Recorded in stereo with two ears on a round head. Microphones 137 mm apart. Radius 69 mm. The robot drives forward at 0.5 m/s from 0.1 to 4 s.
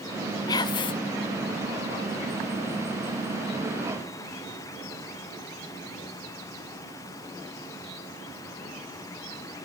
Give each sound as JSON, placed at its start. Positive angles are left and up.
{"t": 0.5, "sound": "whispering", "side_deg": 25, "distance_m": 0.8}